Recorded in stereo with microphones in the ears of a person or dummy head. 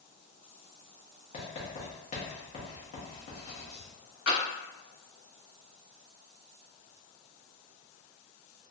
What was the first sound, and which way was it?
Writing, 35° left (ahead or behind).